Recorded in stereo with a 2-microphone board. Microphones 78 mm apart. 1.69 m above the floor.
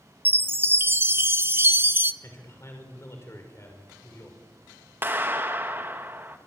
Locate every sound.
0.2 s a chime: 30° right (ahead or behind), 0.7 m
2.2 s a man speaking: 35° left (ahead or behind), 5 m
5.0 s a clap: 30° right (ahead or behind), 1.9 m